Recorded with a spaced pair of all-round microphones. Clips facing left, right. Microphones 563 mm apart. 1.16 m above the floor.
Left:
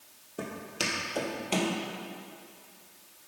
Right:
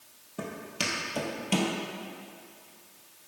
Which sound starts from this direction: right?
Footsteps, at 0.4 s.